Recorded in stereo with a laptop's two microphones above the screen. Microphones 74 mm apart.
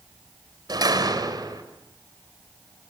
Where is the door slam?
60° right (ahead or behind), 3.5 m.